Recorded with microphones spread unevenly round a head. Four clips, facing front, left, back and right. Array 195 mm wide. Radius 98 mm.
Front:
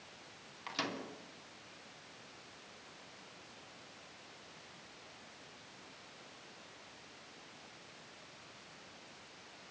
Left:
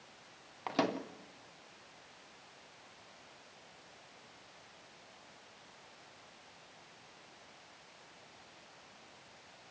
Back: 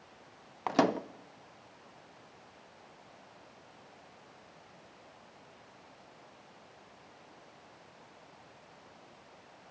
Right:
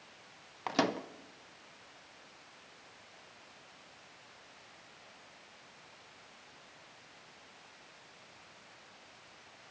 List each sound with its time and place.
0.7 s a microwave: 175° right, 0.7 m